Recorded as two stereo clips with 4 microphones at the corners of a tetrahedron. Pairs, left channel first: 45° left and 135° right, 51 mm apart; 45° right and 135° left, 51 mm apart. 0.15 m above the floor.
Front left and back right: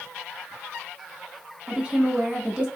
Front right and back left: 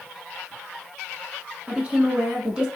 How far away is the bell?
I don't hear a bell.